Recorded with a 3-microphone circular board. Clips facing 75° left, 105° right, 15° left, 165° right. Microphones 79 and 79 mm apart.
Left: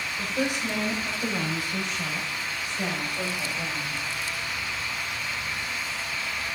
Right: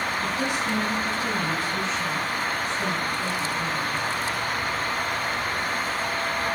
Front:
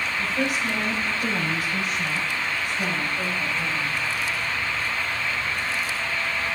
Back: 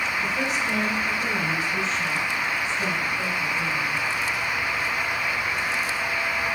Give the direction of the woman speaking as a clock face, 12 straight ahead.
9 o'clock.